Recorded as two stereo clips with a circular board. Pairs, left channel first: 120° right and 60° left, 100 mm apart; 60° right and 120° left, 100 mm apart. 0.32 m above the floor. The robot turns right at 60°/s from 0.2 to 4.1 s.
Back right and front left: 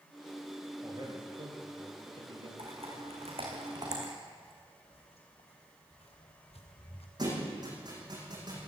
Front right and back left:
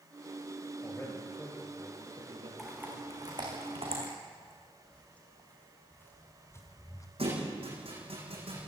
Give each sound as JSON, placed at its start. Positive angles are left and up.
{"t": 0.8, "sound": "a man speaking", "azimuth_deg": 0, "distance_m": 7.5}
{"t": 2.6, "sound": "typing on a keyboard", "azimuth_deg": 35, "distance_m": 6.5}
{"t": 4.4, "sound": "footsteps", "azimuth_deg": -140, "distance_m": 5.0}
{"t": 7.2, "sound": "a thud", "azimuth_deg": 105, "distance_m": 8.5}